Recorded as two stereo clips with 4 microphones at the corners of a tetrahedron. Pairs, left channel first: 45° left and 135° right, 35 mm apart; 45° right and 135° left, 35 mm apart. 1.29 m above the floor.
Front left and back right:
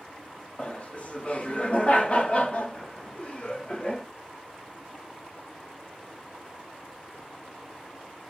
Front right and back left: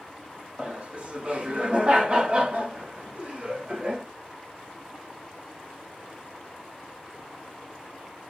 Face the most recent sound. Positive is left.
turn(degrees=90)